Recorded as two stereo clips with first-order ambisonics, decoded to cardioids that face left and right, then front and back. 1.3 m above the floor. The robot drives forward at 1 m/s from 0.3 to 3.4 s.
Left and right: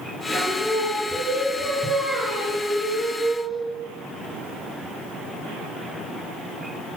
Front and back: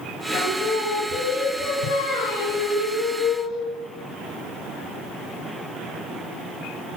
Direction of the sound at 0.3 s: Straight ahead.